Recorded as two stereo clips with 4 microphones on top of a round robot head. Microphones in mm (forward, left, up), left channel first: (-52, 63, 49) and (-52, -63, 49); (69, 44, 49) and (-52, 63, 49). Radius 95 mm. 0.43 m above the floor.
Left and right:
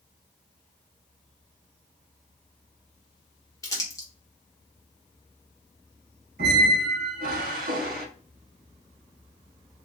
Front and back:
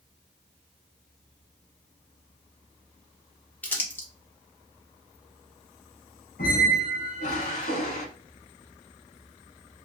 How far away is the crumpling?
About 1.5 m.